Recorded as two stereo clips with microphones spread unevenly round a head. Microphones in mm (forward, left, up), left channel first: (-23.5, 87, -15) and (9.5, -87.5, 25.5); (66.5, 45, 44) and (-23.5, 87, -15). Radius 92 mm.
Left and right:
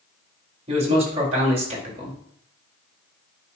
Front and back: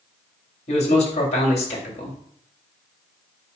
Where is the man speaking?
20° right, 2.5 m.